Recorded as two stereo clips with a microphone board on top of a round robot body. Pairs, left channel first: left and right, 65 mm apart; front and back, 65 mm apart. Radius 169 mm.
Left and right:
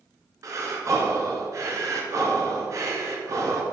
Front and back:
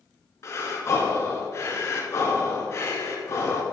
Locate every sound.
0.4 s breathing: 50° right, 1.6 m